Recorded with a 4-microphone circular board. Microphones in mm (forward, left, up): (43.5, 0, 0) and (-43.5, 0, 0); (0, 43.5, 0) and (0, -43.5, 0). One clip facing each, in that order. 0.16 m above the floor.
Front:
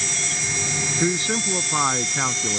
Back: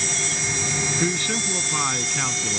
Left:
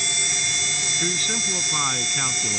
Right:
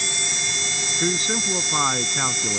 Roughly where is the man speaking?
Ahead right.